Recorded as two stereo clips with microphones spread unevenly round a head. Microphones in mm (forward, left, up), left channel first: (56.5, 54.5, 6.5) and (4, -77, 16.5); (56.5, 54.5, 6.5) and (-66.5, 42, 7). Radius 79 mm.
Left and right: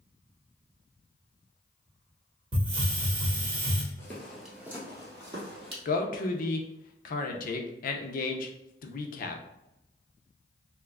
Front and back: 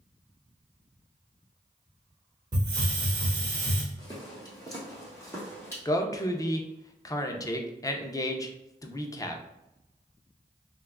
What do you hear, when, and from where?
2.5 s a hiss: 130° right, 0.9 m
4.0 s footsteps: 5° left, 1.2 m; by 5.8 s 70° right, 2.0 m
5.8 s a man speaking: 70° left, 0.6 m